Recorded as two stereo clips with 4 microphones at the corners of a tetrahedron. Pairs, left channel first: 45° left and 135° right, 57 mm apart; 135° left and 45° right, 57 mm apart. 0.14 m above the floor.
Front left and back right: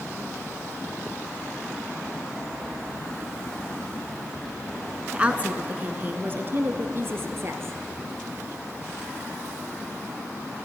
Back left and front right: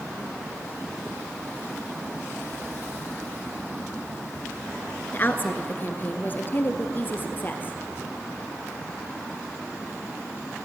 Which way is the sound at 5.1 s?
165° left.